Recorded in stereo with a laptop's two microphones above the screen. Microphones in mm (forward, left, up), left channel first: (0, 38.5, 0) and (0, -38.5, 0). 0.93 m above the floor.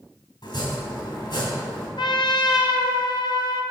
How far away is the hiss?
No hiss in this recording.